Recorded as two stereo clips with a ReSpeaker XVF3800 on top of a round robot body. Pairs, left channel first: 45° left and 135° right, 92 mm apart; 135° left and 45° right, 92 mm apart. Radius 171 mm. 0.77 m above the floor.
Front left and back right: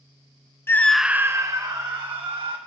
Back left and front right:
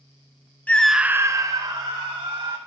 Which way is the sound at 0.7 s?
80° left.